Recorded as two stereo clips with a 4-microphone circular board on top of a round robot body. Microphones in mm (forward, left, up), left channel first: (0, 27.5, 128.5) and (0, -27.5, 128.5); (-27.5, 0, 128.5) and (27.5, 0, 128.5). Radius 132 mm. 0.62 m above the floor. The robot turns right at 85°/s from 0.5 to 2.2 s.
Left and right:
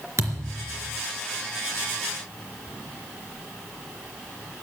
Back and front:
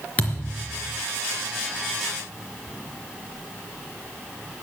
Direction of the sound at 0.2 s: 115° right.